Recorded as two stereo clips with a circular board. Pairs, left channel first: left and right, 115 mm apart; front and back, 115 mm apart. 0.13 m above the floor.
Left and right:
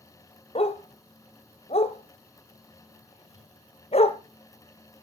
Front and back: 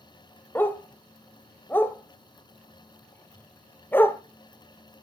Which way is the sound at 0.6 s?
75° left.